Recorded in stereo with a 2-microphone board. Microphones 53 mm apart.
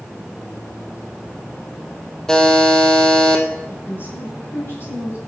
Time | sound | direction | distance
2.3 | a buzzer | 10° left (ahead or behind) | 1.7 m
3.7 | a woman speaking | 40° left (ahead or behind) | 7 m